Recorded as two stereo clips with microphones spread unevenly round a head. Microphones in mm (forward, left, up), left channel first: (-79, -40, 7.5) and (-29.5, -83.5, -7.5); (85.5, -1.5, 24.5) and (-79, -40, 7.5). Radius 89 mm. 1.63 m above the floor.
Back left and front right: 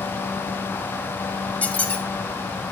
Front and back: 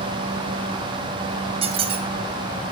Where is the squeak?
145° left, 0.7 m.